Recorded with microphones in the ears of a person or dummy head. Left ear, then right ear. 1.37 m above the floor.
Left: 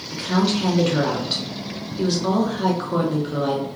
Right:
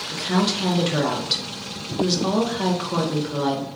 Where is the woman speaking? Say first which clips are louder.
Left 1 dB; 20° right (ahead or behind), 0.9 m.